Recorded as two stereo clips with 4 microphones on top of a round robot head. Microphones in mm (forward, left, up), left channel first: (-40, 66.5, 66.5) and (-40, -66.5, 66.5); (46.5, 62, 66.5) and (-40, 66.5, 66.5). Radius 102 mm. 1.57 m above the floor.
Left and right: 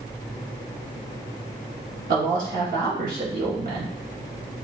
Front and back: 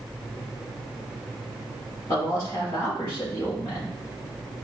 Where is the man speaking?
65° right, 1.0 m.